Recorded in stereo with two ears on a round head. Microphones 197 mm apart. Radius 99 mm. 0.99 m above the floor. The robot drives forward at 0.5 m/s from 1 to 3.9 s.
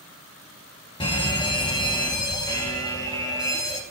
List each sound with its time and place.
1.0 s a fire alarm: 25° left (ahead or behind), 1.7 m; by 3.8 s 15° left (ahead or behind), 2.5 m